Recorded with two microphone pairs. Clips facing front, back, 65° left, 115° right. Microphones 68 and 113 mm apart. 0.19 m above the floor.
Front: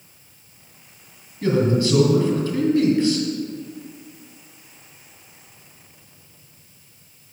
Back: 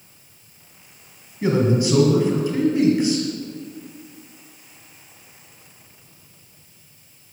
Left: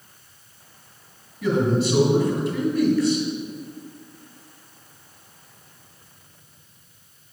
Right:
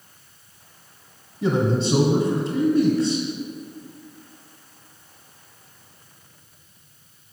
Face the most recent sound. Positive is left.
turn(degrees=-125)